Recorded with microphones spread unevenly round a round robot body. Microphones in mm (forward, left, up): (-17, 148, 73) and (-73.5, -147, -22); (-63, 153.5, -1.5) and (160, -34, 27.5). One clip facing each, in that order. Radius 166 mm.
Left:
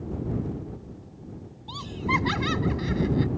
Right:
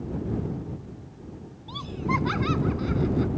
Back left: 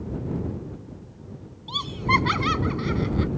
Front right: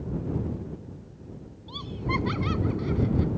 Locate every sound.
1.7 s laughter: 130° left